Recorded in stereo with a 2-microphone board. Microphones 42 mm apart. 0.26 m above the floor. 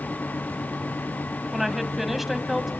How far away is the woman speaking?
About 1.7 m.